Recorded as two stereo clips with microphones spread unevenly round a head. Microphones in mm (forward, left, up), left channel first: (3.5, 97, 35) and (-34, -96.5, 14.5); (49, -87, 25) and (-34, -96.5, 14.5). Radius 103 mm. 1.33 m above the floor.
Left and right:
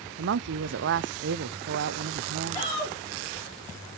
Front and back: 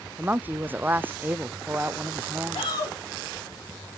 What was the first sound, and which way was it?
A woman speaking, 110° right.